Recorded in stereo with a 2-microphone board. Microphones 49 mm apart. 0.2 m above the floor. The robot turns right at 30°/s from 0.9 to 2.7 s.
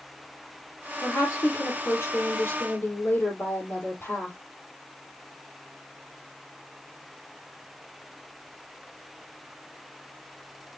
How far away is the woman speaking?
About 6.5 m.